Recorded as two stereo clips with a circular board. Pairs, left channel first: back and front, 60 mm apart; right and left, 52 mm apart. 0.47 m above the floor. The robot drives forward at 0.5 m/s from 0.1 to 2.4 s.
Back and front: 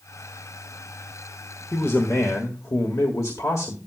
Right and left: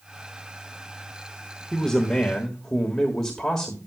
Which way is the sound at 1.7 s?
165° right.